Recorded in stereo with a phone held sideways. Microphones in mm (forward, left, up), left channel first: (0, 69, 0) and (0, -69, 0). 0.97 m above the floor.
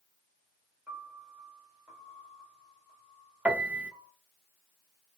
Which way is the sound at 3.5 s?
10° right (ahead or behind).